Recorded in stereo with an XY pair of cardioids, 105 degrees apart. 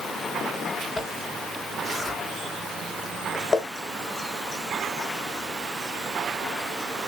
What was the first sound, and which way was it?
A zipper, 30° left.